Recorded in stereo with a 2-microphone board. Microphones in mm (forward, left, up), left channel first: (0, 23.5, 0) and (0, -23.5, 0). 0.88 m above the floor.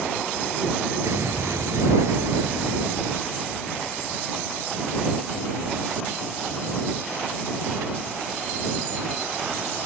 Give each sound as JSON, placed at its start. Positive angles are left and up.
{"t": 1.0, "sound": "an explosion", "side_deg": -80}